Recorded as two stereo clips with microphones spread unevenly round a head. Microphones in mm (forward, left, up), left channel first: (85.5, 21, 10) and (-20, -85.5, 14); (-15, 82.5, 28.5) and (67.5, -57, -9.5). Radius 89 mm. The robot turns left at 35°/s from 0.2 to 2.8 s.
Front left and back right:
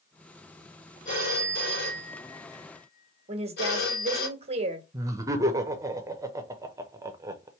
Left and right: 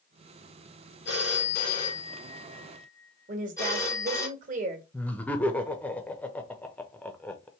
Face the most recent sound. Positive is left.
turn(degrees=-135)